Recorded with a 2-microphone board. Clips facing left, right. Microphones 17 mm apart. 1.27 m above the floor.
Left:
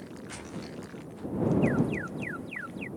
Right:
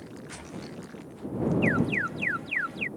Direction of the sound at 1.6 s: 40° right (ahead or behind).